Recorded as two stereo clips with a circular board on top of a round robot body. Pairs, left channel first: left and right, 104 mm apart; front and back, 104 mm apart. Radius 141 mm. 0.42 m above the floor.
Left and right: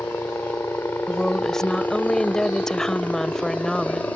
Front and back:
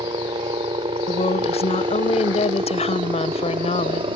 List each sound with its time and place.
0.0 s a helicopter: 160° left; by 4.2 s 165° left
1.1 s a woman speaking: 5° left